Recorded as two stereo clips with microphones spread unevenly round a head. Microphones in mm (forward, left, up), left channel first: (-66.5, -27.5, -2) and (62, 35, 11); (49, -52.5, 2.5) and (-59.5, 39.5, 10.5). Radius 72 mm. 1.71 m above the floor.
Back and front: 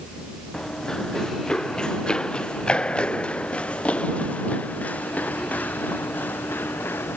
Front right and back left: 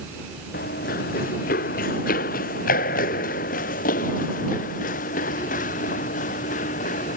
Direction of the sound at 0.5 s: 65° right.